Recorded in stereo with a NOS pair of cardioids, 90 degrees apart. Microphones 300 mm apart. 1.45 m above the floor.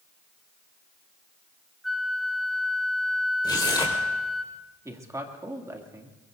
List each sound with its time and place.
1.8 s a flute: straight ahead, 1.0 m
3.4 s tearing paper: 15° left, 4.5 m
4.8 s a man speaking: 10° right, 2.5 m